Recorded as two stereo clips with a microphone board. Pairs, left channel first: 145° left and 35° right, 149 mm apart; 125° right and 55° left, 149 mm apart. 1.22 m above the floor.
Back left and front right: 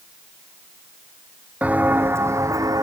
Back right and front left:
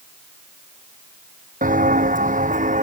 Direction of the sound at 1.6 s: 45° left.